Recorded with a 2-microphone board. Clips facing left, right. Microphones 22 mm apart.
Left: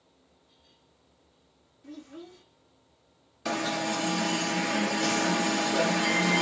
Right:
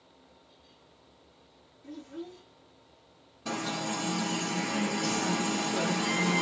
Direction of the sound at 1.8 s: 20° left (ahead or behind).